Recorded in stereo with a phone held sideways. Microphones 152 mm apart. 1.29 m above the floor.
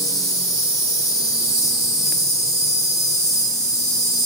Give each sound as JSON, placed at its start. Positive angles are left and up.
{"t": 0.0, "sound": "an insect", "side_deg": 20, "distance_m": 6.5}